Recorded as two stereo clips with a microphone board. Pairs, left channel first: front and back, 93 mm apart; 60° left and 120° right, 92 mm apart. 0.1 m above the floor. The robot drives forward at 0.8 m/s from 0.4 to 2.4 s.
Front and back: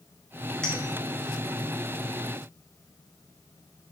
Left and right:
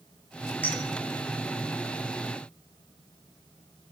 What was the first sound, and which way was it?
A clink, 65° left.